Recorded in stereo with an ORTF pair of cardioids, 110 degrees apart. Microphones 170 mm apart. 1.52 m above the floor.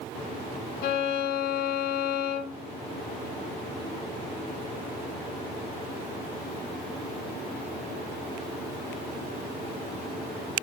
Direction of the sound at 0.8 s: 60° left.